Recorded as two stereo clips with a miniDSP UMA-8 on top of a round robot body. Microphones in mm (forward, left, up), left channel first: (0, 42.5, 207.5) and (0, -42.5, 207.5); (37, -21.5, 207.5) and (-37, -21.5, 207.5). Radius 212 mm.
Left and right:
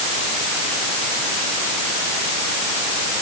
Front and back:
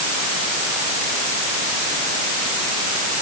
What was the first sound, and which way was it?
Only background noise.